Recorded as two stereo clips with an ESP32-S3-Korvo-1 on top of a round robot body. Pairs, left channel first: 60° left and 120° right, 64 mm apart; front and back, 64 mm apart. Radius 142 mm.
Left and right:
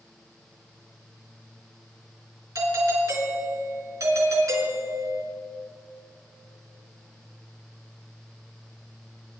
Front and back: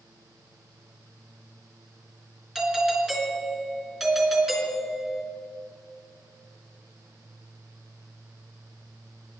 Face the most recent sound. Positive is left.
turn(degrees=-100)